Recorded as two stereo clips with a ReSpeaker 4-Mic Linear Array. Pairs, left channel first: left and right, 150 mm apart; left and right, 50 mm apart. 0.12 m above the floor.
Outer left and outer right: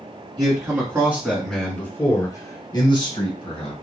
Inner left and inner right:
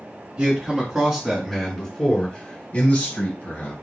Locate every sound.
0.4 s a man speaking: 25° right (ahead or behind), 1.3 m; by 3.7 s 45° left (ahead or behind), 1.8 m